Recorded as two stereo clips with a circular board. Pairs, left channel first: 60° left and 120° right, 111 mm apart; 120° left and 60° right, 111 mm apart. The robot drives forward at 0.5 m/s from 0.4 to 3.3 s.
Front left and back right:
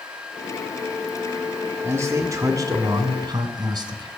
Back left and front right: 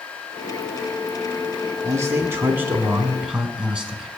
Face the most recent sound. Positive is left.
turn(degrees=-140)